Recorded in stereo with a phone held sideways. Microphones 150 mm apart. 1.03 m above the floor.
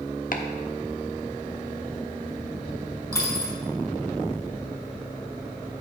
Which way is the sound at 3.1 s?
15° left (ahead or behind).